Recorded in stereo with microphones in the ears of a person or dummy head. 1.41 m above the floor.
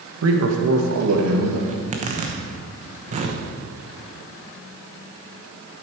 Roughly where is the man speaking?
Right.